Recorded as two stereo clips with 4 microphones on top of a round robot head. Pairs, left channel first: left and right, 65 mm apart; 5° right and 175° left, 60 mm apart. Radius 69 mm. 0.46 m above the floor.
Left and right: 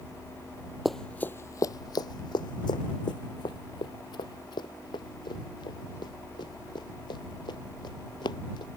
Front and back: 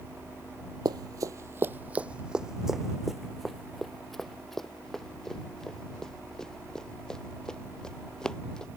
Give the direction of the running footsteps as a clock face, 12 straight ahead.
6 o'clock.